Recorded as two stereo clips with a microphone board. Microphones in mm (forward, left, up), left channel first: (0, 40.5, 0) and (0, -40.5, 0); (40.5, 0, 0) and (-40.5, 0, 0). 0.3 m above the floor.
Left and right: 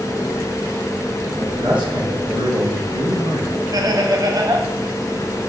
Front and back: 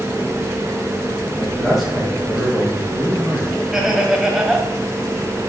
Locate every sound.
1.4 s a man speaking: 95° right, 3.5 m
3.7 s laughter: 100° right, 1.6 m